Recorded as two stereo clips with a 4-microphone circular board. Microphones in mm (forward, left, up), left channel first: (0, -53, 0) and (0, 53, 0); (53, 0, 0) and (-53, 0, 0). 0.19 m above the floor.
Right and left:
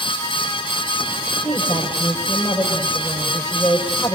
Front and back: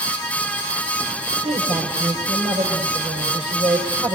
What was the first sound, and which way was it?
A woman speaking, 170° right.